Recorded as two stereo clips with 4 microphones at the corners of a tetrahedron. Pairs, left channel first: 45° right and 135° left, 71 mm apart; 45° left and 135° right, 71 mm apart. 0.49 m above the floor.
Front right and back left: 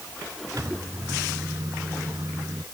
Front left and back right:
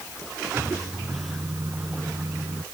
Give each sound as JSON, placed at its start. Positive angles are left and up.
{"t": 0.6, "sound": "a microwave", "azimuth_deg": 175}